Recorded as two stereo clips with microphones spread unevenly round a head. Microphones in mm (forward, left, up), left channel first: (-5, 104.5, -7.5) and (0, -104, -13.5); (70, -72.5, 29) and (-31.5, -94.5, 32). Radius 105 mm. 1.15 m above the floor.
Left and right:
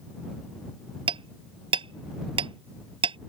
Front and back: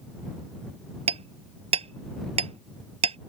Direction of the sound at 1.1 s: 155° right.